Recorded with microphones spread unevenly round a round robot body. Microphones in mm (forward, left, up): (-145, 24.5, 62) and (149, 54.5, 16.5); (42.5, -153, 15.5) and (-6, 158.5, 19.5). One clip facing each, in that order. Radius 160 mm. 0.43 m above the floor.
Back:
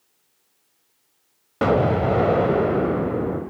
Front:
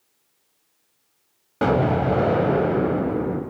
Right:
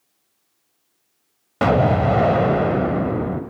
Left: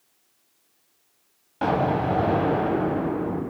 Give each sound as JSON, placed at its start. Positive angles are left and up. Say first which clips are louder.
{"t": 1.6, "sound": "an explosion", "louder": "back 1 dB, right 6 dB", "azimuth_deg": -85, "distance_m": 1.3}